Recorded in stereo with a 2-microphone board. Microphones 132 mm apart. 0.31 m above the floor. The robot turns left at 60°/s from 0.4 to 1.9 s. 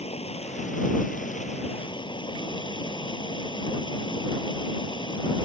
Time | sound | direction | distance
0.0 | running water | 130° left | ?